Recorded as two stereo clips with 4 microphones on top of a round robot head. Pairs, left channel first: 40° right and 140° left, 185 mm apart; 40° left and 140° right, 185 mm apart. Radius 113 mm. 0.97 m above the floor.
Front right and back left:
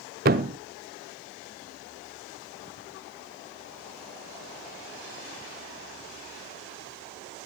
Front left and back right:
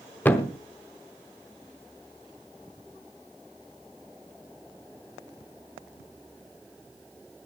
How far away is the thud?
About 0.7 m.